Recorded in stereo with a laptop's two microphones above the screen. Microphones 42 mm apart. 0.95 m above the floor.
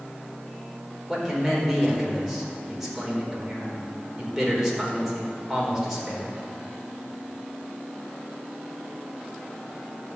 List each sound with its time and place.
1.1 s a man speaking: 10° right (ahead or behind), 4 m